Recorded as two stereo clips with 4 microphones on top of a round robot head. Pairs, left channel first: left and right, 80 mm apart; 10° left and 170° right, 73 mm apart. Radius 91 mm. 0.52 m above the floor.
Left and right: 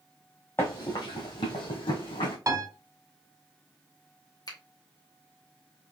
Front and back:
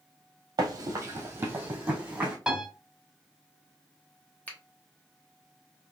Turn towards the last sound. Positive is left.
turn(degrees=75)